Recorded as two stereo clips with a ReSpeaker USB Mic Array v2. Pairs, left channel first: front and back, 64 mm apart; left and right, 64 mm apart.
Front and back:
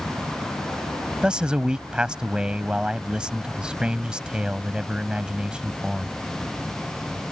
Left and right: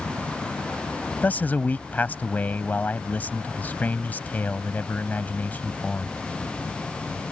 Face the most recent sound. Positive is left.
turn(degrees=120)